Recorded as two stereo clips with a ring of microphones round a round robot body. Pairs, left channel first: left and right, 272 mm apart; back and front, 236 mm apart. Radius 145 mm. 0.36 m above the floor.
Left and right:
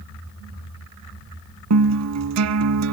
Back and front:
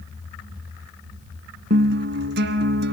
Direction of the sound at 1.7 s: 55° right.